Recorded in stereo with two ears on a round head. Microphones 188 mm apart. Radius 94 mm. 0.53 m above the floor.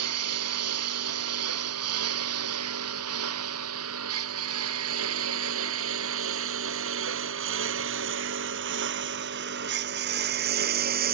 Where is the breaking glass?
I don't hear breaking glass.